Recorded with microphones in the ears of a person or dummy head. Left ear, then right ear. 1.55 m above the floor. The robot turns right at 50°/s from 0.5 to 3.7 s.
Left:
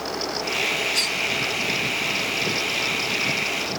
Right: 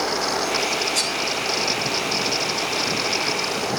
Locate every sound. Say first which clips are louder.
0.9 s cutlery clinking: even; 25° right (ahead or behind), 3 m; by 1.1 s 35° right (ahead or behind), 3 m